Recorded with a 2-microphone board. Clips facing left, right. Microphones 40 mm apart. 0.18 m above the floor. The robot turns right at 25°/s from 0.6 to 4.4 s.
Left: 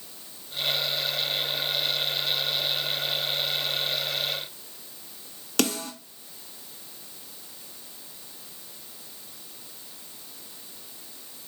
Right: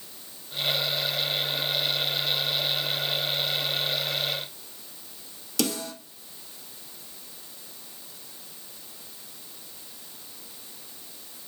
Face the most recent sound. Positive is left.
turn(degrees=50)  # may be behind; listen again after turning